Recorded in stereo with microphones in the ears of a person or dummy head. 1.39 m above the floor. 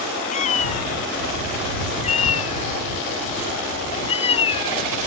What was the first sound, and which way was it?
A cat meowing, 45° left (ahead or behind).